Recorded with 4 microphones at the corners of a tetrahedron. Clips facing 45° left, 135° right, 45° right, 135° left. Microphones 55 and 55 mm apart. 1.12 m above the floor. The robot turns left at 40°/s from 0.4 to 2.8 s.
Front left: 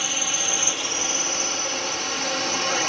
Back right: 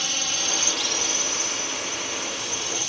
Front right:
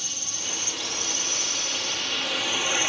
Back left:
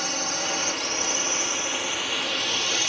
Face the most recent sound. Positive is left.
turn(degrees=25)